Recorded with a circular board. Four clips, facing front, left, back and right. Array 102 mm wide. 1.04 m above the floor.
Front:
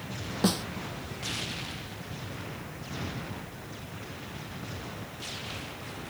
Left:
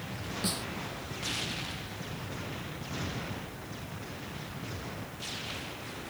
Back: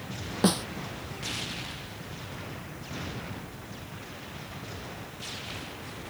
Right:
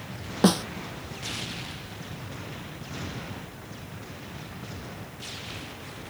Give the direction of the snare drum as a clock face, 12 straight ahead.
3 o'clock.